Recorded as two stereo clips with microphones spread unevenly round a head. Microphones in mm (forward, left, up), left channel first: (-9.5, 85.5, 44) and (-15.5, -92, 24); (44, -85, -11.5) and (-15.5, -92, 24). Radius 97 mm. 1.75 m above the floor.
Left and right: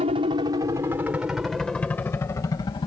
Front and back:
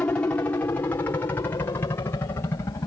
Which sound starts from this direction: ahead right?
A helicopter, at 0.0 s.